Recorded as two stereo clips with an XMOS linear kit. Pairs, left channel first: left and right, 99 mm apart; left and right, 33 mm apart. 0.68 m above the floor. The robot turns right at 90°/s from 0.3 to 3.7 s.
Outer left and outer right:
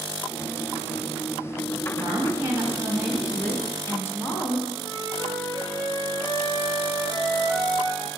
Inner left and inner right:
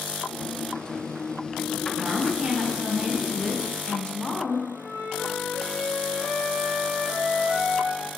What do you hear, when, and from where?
1.9 s a woman speaking: 105° right, 0.6 m; by 4.6 s 50° left, 0.6 m
4.7 s a flute: 35° right (ahead or behind), 1.6 m